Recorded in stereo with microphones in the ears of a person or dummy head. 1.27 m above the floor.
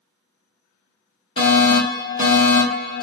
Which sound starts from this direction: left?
A fire alarm, at 1.4 s.